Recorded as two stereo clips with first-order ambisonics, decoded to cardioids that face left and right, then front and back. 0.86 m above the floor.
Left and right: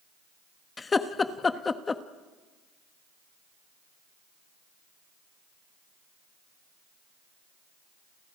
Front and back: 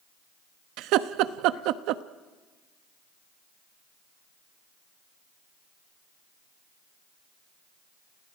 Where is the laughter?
160° left, 1.0 m.